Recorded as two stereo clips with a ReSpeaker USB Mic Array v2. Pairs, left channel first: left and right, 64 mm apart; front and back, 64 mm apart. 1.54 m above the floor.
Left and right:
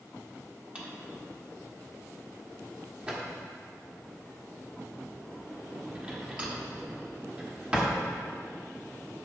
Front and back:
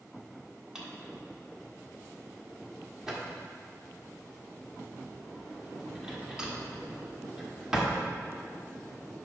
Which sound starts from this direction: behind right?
A drawer, at 0.8 s.